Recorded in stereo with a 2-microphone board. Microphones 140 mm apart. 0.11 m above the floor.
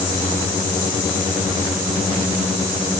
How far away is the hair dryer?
I don't hear a hair dryer.